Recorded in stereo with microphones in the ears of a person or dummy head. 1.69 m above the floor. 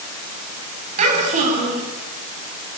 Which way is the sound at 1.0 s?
40° right (ahead or behind).